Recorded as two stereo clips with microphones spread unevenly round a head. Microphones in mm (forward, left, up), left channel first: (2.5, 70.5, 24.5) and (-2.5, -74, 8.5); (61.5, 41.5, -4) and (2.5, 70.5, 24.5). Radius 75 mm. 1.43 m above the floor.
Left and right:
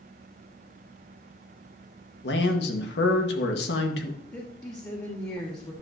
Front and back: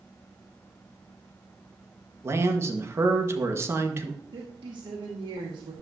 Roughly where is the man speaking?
Left.